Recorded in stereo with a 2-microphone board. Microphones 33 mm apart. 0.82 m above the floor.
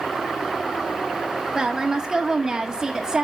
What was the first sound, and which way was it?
A woman speaking, 20° right (ahead or behind).